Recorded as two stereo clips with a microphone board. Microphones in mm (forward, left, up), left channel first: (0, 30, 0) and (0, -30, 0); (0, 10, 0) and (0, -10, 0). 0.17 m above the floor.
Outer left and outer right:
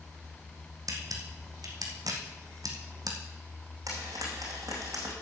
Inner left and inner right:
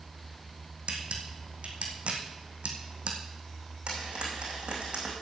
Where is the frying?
70° right (ahead or behind), 4.5 m.